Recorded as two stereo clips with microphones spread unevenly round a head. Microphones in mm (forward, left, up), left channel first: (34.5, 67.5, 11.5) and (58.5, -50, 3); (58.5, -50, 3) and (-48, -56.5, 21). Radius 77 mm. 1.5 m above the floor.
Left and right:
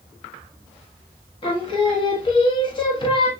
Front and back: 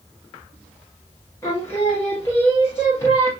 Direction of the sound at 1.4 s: 80° left.